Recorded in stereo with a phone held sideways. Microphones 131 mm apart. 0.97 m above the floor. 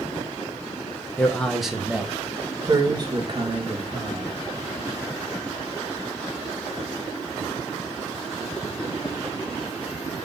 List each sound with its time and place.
1.2 s a man speaking: 15° left (ahead or behind), 0.7 m; by 4.4 s 45° right (ahead or behind), 1.7 m